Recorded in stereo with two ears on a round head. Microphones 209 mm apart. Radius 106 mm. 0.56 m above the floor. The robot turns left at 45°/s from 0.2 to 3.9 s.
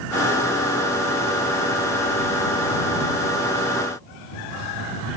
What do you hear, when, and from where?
Only background noise.